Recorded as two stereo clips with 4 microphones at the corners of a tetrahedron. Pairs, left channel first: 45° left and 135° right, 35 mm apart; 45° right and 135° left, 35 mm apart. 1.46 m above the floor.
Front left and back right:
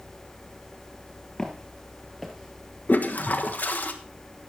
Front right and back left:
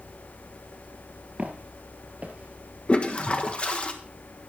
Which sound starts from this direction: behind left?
Footsteps, at 1.4 s.